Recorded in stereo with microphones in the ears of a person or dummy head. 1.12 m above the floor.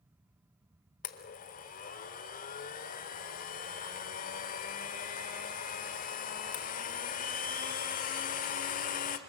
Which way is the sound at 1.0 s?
40° left (ahead or behind).